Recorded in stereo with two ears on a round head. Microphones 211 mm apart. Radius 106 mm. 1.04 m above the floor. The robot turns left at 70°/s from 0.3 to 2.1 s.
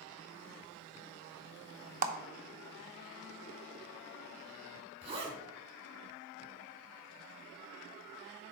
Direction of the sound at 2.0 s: 35° right (ahead or behind).